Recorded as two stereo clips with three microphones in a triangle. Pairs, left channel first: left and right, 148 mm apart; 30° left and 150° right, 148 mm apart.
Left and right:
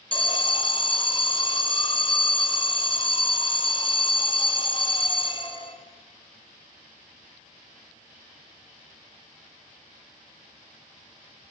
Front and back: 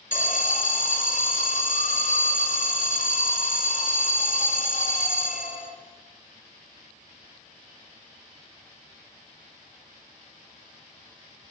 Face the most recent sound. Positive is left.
turn(degrees=45)